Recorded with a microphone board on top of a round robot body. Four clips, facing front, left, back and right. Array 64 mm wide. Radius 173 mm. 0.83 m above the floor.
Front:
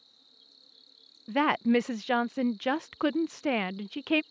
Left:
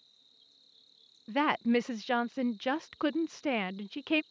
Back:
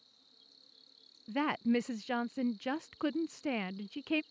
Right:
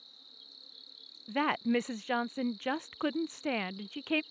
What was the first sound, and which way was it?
An insect, 85° right.